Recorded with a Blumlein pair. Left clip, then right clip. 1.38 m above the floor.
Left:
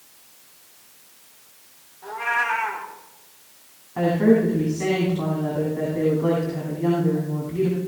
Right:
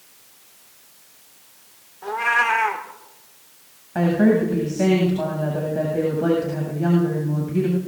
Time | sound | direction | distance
2.0 | a cat meowing | 65° right | 2 m
4.0 | a woman speaking | 45° right | 8 m